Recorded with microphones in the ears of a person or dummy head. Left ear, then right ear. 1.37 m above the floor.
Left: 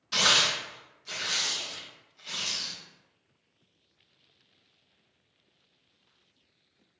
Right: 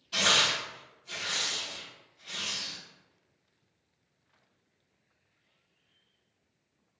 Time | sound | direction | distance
0.1 | tearing paper | 60° left (ahead or behind) | 0.8 m